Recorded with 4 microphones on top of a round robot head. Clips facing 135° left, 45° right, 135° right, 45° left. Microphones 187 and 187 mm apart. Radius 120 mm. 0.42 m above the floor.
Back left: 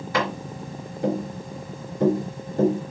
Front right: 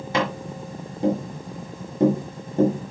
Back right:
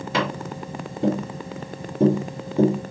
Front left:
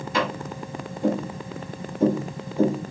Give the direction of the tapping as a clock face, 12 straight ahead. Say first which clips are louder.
Front right 1 dB, back right 1 dB; 4 o'clock.